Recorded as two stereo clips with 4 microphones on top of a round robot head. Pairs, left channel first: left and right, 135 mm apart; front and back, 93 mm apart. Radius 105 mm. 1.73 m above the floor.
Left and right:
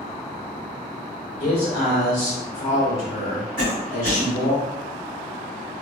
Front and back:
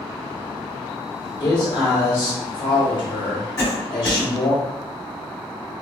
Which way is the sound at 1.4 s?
35° left.